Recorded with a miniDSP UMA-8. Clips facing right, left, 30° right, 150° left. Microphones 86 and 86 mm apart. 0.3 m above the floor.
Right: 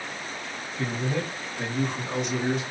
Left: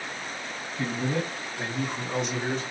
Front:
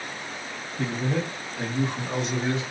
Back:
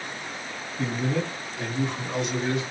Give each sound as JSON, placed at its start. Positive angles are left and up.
{"t": 0.8, "sound": "a man speaking", "azimuth_deg": 10, "distance_m": 2.5}